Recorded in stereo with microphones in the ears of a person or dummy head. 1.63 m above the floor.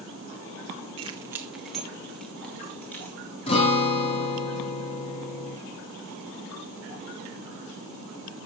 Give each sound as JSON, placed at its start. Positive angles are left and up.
{"t": 1.0, "sound": "keys jangling", "side_deg": -25, "distance_m": 0.8}
{"t": 3.5, "sound": "a guitar", "side_deg": 40, "distance_m": 3.5}